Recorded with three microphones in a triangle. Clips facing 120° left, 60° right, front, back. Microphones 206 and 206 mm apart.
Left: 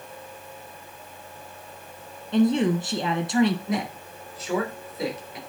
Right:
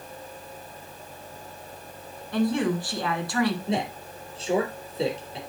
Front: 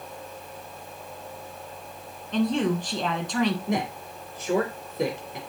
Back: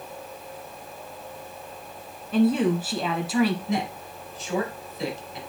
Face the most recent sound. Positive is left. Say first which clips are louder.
# even, even
turn(degrees=-5)